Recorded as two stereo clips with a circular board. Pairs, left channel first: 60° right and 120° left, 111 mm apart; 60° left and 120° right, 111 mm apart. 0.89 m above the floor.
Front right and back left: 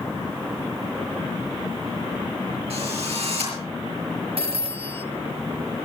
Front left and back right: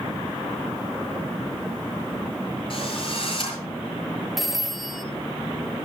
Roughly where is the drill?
Left.